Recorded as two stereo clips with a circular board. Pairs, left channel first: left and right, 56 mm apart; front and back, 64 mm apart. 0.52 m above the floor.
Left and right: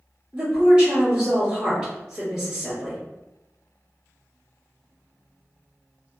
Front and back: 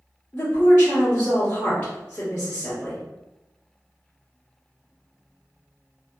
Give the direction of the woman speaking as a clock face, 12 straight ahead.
1 o'clock.